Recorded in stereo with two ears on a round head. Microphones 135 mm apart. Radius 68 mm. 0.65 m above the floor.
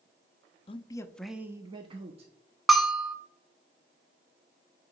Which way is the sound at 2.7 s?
Centre (ahead or behind).